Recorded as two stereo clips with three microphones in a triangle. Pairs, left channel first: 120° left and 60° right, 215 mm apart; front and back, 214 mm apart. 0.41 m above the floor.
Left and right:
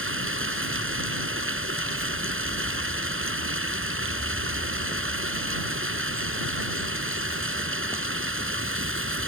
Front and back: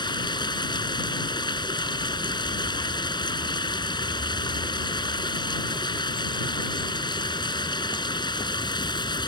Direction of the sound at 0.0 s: 70° right.